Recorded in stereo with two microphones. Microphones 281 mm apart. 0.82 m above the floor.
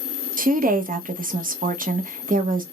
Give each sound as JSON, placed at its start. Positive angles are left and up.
{"t": 0.4, "sound": "a woman speaking", "side_deg": -30, "distance_m": 0.8}